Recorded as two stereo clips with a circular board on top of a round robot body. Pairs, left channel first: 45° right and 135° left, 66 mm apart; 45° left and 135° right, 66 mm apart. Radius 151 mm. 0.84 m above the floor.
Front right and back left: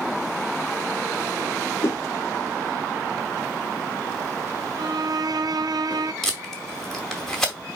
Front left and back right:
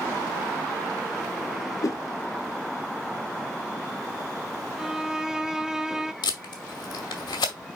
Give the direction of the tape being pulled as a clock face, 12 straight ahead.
11 o'clock.